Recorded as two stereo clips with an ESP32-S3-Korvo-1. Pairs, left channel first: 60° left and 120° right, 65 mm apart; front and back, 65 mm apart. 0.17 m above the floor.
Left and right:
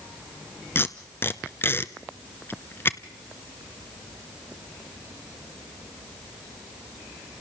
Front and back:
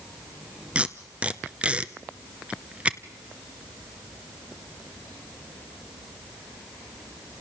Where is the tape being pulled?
110° left, 1.0 m.